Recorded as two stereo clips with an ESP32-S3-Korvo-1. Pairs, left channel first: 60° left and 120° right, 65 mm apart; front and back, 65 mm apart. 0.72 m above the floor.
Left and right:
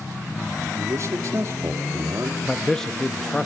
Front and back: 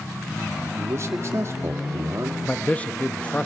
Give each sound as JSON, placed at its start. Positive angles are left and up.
{"t": 0.7, "sound": "a man speaking", "azimuth_deg": -150, "distance_m": 1.7}
{"t": 2.4, "sound": "a man speaking", "azimuth_deg": -10, "distance_m": 0.5}